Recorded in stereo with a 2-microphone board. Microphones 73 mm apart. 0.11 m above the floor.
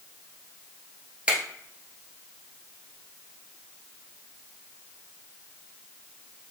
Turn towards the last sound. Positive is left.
turn(degrees=-15)  # may be behind; listen again after turning